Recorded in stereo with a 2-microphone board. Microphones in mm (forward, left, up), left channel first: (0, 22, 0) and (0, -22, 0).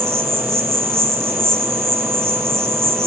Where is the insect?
80° right, 1.3 m.